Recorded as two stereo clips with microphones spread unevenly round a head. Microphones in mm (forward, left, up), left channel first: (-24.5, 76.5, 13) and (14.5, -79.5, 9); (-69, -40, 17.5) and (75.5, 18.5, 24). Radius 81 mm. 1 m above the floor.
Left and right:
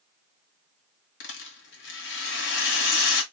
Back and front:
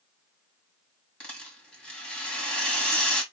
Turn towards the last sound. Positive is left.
turn(degrees=115)